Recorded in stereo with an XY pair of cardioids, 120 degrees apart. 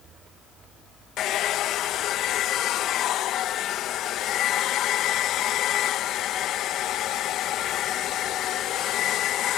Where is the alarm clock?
I don't hear an alarm clock.